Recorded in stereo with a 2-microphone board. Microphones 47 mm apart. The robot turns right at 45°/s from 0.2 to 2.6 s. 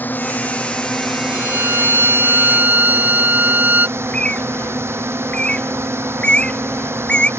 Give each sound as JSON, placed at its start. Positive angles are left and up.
{"t": 0.0, "sound": "a drone", "azimuth_deg": 135}
{"t": 1.3, "sound": "a violin", "azimuth_deg": -100}
{"t": 4.0, "sound": "a bird", "side_deg": 20}